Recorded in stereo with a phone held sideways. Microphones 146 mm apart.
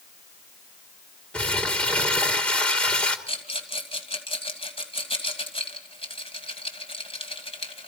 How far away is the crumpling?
About 1.7 m.